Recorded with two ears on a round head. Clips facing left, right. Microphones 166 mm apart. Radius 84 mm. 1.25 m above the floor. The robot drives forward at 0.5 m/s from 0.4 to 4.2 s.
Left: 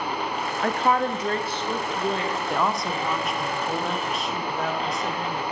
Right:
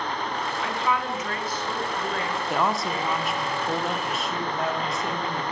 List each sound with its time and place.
0.6 s a woman speaking: 40° left (ahead or behind), 0.7 m; by 2.4 s 20° left (ahead or behind), 1.4 m
2.5 s a woman speaking: centre (ahead or behind), 0.7 m